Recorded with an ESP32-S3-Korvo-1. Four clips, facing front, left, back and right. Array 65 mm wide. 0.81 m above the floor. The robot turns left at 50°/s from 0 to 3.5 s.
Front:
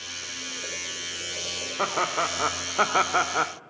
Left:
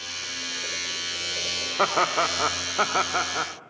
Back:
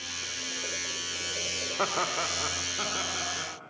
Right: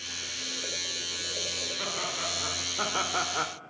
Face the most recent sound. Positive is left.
turn(degrees=0)